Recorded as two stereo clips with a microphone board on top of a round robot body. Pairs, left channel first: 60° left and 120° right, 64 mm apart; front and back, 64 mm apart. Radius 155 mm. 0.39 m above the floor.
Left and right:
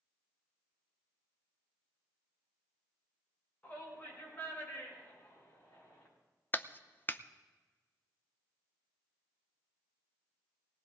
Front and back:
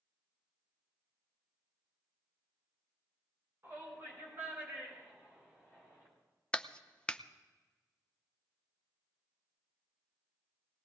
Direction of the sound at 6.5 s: 60° left.